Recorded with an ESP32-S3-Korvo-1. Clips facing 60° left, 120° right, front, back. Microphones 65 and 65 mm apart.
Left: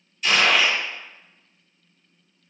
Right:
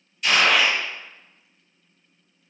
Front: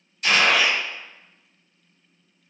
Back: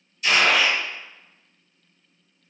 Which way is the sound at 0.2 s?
30° right.